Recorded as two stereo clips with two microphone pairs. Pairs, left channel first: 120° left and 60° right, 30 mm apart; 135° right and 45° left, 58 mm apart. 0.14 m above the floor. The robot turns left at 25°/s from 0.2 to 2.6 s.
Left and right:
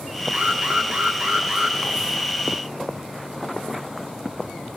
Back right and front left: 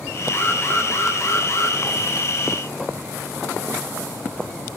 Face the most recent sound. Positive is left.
turn(degrees=-150)